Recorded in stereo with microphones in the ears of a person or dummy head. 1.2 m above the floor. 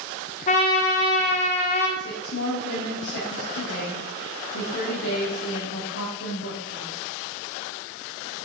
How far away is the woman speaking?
About 3 m.